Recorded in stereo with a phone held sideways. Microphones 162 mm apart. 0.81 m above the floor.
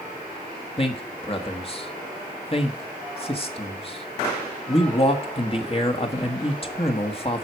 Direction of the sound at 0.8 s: 35° left (ahead or behind).